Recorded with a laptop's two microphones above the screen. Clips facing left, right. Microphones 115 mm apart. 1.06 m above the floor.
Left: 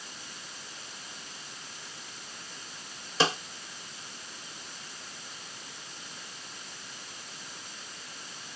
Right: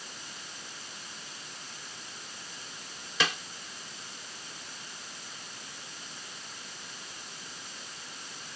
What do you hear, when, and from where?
3.2 s a snare drum: 30° left (ahead or behind)